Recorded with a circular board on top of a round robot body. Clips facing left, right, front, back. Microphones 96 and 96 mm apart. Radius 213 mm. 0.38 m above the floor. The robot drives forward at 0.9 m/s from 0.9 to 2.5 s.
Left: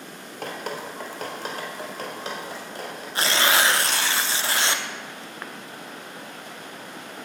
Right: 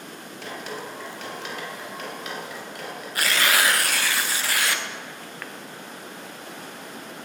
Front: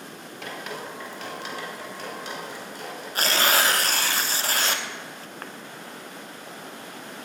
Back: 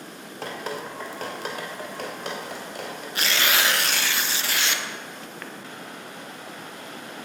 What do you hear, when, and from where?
0.4 s dripping: 125° left, 2.5 m; by 3.0 s 150° left, 3.5 m
3.1 s tearing paper: 35° left, 1.2 m